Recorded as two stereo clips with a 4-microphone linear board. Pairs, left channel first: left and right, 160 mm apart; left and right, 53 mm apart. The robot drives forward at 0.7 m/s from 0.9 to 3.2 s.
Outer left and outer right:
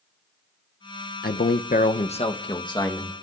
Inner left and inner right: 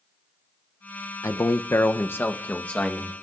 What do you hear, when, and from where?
1.2 s a man speaking: 75° left (ahead or behind), 0.5 m; by 3.1 s 20° left (ahead or behind), 1.3 m